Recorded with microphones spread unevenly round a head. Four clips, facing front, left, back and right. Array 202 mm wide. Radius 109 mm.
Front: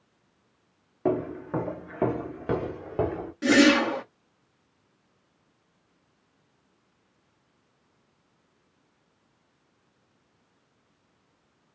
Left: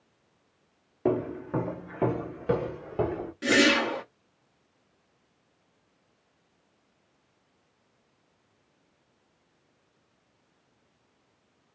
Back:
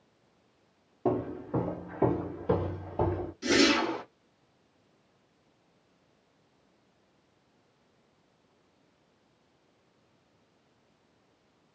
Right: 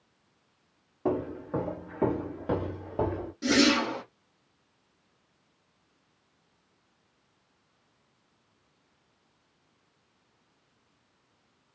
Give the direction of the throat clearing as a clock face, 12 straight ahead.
No throat clearing in this recording.